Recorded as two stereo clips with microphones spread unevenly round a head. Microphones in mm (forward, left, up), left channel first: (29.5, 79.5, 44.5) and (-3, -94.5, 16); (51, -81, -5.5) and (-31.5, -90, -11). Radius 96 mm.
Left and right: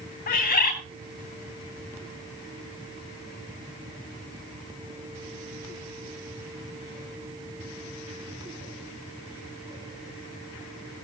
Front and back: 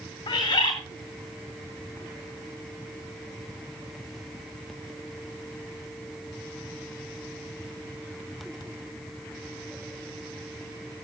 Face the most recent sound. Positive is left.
turn(degrees=45)